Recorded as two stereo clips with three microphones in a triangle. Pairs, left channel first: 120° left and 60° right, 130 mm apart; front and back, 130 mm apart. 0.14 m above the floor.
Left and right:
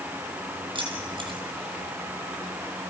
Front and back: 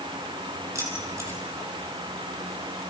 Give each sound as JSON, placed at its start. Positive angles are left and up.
{"t": 0.8, "sound": "keys jangling", "azimuth_deg": -110, "distance_m": 3.5}